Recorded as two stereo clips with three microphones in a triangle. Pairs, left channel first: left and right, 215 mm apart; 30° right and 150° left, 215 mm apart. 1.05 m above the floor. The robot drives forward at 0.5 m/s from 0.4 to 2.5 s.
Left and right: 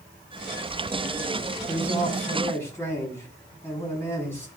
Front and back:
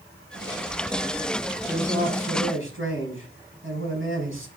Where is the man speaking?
170° left, 5.5 m.